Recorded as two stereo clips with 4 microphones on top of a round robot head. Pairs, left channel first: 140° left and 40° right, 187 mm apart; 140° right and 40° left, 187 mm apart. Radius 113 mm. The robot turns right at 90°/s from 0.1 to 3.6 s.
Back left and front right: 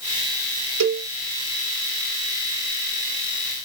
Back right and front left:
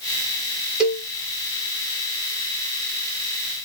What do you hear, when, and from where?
0.8 s a cowbell: 45° right, 0.7 m; by 1.1 s 20° right, 0.7 m